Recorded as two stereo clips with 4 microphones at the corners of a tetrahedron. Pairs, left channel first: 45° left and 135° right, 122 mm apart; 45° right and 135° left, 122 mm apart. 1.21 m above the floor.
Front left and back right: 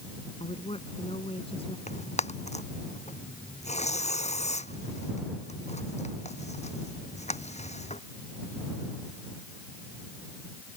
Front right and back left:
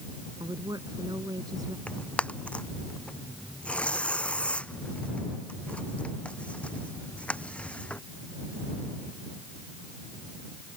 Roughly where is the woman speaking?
Left.